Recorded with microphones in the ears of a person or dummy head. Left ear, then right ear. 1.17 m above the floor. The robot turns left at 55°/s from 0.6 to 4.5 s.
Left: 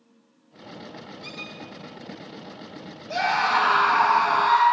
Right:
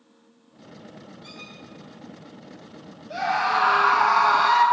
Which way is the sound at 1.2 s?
25° left (ahead or behind).